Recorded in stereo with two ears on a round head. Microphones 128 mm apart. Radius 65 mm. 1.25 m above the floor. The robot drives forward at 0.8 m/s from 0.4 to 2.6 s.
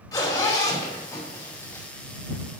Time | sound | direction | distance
0.1 | a zipper | 25° left (ahead or behind) | 4.5 m